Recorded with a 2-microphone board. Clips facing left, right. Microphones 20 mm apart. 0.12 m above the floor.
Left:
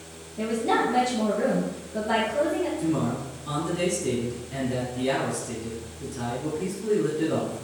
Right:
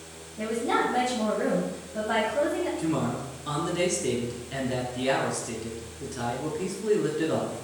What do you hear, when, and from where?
0.4 s a woman speaking: 50° left (ahead or behind), 1.9 m
2.8 s a man speaking: 25° right (ahead or behind), 1.1 m